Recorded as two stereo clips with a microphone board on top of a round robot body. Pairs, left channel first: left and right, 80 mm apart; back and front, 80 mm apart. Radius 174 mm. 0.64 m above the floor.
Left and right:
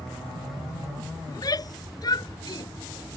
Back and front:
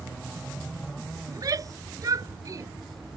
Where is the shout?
45° left; by 2.7 s 50° left.